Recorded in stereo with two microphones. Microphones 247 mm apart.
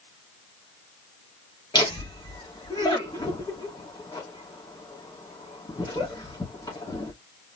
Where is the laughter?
15° left (ahead or behind), 2.5 m.